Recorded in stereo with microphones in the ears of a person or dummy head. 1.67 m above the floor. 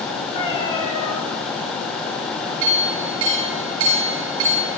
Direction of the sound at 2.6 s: 75° right (ahead or behind).